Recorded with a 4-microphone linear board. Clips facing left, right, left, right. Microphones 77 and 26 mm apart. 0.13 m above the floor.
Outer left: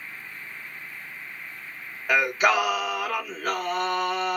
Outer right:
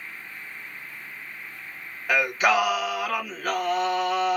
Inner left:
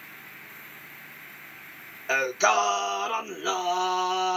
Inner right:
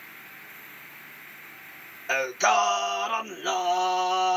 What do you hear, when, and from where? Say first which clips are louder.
2.1 s singing: even, even; 5° left (ahead or behind), 1.6 m